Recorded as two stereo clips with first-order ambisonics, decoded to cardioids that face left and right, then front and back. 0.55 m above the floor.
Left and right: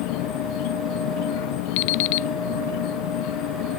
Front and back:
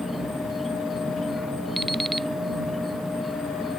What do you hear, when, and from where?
0.0 s an insect: 85° left
1.8 s an alarm clock: 90° left